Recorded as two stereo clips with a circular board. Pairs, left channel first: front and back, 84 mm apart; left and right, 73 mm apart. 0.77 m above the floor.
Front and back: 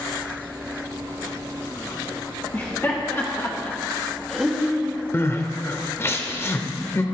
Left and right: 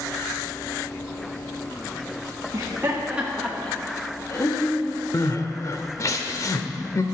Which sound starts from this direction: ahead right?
Laughter, at 2.5 s.